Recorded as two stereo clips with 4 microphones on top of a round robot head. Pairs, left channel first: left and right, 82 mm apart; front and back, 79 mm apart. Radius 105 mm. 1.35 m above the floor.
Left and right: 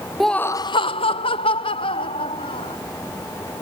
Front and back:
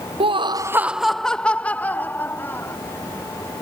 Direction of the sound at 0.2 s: Straight behind.